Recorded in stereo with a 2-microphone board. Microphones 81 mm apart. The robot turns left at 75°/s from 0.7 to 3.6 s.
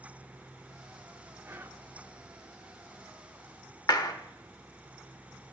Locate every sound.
1.4 s whispering: 30° right (ahead or behind), 0.7 m; by 1.9 s 25° right (ahead or behind), 0.7 m
3.9 s a clap: 55° left (ahead or behind), 1.0 m